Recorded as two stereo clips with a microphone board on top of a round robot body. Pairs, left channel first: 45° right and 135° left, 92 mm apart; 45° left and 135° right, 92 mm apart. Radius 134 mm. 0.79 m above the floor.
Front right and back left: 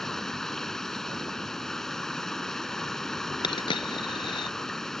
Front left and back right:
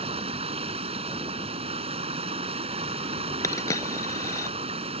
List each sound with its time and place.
0.0 s running water: 130° right
3.4 s a dropped coin: 10° right